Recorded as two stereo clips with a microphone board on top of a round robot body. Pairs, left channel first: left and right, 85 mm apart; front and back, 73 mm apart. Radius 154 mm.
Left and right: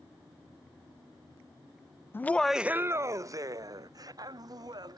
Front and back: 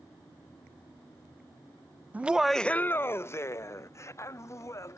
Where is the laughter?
130° left; by 5.0 s 50° right.